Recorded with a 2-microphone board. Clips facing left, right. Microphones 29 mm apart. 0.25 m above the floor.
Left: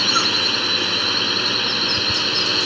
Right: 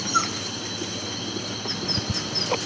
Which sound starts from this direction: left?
A drone, at 0.0 s.